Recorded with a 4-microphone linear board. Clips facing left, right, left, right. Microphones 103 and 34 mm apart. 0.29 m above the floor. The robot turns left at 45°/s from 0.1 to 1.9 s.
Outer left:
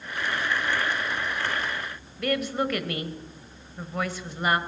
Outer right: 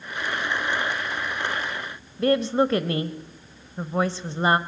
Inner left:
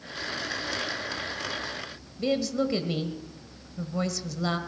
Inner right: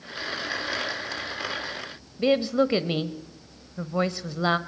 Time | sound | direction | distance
2.2 | a woman speaking | 30° right (ahead or behind) | 1.0 m